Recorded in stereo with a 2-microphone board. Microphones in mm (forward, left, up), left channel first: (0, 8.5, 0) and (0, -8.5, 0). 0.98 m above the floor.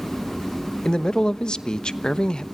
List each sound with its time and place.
0.8 s a man speaking: 50° left (ahead or behind), 0.9 m